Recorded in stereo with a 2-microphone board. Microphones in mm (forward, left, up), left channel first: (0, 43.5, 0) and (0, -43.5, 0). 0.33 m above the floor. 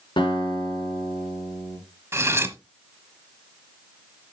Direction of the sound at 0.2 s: 65° left (ahead or behind).